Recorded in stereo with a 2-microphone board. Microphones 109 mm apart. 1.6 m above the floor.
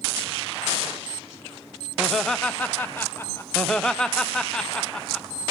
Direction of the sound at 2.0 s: 5° right (ahead or behind).